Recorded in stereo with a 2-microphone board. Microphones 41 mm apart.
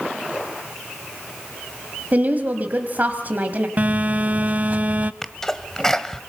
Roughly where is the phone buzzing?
Right.